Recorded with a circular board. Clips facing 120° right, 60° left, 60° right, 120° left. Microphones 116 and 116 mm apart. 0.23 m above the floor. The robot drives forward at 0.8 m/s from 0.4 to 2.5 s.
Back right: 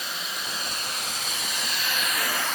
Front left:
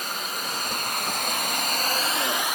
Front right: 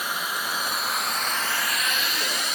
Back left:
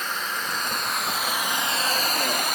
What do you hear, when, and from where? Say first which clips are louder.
0.0 s running water: front left 3 dB, even; 20° left, 1.4 m; by 2.5 s 135° left, 0.8 m